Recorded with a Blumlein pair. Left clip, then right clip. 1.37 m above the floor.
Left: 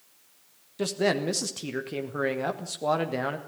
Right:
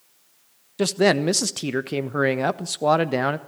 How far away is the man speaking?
About 1.2 m.